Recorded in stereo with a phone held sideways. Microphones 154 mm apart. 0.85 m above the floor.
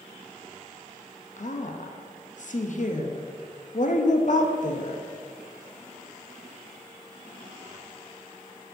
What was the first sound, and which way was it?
A woman speaking, 60° left (ahead or behind).